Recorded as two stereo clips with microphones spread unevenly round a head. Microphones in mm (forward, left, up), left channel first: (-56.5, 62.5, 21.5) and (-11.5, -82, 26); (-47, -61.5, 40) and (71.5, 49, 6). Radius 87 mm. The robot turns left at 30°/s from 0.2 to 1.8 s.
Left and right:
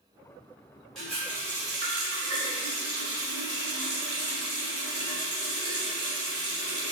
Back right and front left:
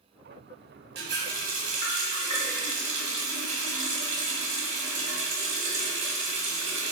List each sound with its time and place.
0.9 s a running tap: 20° left, 1.0 m; by 6.9 s 10° right, 1.0 m